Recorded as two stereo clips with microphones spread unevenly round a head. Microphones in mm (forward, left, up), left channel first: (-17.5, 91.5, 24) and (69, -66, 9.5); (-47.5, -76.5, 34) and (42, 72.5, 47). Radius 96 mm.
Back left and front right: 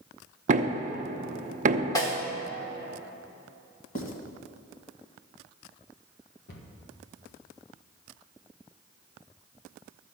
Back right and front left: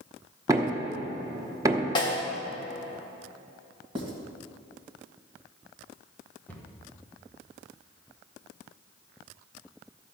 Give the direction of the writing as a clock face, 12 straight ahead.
8 o'clock.